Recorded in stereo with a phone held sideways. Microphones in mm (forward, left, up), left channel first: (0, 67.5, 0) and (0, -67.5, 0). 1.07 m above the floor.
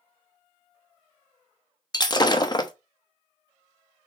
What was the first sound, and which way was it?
Breaking glass, 30° left (ahead or behind).